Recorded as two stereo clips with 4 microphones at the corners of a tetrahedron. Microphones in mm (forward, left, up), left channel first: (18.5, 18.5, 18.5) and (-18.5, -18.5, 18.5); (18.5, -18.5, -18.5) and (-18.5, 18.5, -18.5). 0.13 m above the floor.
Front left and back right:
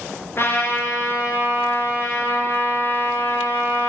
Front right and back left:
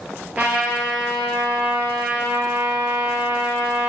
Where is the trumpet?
75° left, 2.5 m.